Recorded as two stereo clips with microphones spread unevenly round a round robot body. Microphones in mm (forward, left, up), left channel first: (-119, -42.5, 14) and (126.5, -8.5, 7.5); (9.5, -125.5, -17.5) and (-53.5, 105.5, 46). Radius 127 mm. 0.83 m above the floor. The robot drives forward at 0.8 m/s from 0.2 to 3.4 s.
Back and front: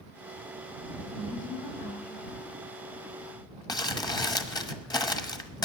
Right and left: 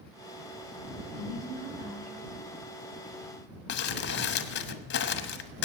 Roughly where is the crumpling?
Right.